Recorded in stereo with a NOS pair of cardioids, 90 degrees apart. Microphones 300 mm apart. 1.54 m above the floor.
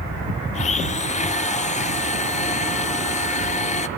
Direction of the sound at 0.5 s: 25° left.